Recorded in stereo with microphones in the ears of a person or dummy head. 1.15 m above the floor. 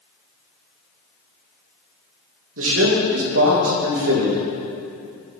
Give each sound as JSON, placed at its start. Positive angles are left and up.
{"t": 2.6, "sound": "a man speaking", "side_deg": -65, "distance_m": 1.6}